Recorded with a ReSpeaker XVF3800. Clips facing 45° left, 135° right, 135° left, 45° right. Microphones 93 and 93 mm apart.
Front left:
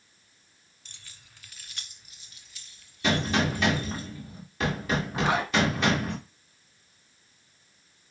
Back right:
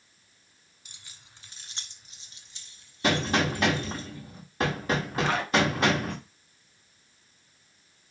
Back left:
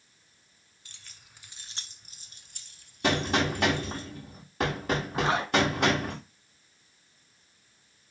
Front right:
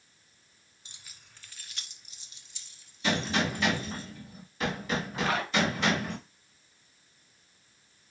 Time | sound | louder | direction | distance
0.8 | keys jangling | even, even | 75° right | 0.7 m
3.0 | a gunshot | even, back left 3 dB | 175° left | 5 m
5.1 | a zipper | front left 1 dB, back left 3 dB | 100° left | 1.3 m